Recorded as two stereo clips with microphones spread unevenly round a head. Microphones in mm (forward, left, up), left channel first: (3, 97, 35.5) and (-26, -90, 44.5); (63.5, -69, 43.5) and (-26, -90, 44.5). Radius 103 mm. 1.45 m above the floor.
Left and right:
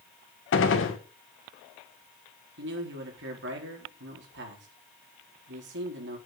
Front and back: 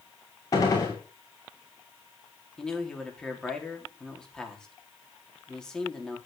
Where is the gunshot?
75° left, 1.9 m.